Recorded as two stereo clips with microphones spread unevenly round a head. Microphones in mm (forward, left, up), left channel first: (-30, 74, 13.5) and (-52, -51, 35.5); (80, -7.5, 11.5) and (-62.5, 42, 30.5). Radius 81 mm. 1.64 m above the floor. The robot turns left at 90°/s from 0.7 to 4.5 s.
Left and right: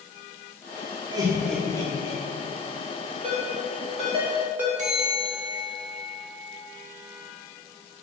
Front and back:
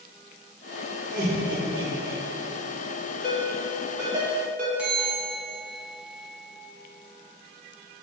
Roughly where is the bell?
Behind right.